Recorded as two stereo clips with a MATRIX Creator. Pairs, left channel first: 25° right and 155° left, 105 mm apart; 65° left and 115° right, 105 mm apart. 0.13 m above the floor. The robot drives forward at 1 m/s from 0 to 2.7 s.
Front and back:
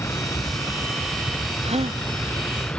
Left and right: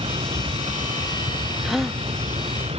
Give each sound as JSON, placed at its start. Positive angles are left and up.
{"t": 0.0, "sound": "a vehicle", "azimuth_deg": -85}
{"t": 1.6, "sound": "a gasp", "azimuth_deg": 160}